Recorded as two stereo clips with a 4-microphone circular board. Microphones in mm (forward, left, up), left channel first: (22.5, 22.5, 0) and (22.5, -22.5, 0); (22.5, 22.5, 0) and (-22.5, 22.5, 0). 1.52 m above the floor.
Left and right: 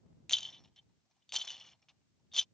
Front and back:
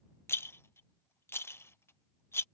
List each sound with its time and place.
0.3 s a rattle: 10° left